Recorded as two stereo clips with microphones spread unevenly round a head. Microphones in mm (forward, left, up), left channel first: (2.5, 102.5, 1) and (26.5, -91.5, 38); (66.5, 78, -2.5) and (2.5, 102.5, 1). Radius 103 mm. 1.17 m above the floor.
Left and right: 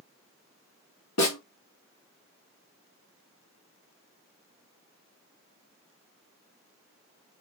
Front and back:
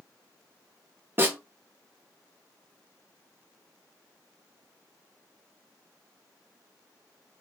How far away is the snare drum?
About 1.9 m.